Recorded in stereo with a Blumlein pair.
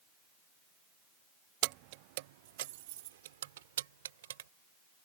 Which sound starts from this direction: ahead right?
Keys jangling, at 1.6 s.